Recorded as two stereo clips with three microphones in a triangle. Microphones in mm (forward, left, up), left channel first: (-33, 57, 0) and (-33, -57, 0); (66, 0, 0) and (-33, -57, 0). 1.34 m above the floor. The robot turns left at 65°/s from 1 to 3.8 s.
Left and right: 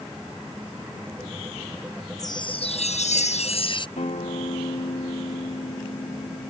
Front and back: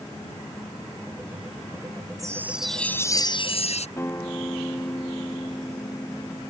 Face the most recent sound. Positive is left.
turn(degrees=95)